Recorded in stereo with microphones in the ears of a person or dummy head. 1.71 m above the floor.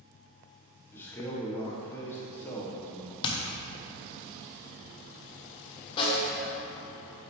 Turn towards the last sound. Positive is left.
turn(degrees=35)  # may be behind; listen again after turning